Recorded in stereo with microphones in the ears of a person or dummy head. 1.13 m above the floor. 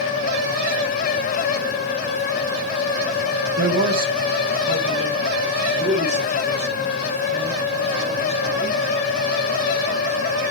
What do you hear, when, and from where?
3.6 s a man speaking: 50° right (ahead or behind), 1.1 m; by 8.8 s 30° right (ahead or behind), 6 m